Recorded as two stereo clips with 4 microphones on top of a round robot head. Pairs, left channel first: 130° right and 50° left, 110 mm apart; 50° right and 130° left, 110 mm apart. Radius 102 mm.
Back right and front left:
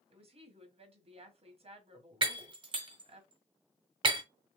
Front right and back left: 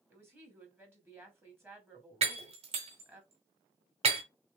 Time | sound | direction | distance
0.1 | a woman speaking | 60° left | 1.8 m
2.2 | breaking glass | 95° left | 1.5 m